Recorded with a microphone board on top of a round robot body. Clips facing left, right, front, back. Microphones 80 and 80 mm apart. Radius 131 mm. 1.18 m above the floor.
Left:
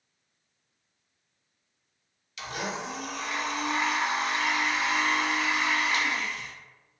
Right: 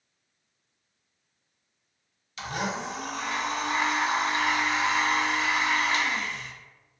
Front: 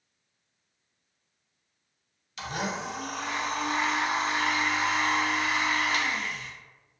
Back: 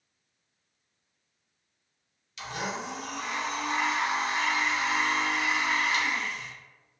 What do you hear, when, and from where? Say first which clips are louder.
2.4 s a blender: right 3 dB, front 2 dB; 40° right, 0.6 m